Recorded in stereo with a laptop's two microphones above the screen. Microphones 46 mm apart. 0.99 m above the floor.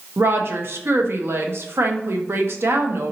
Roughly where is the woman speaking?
Right.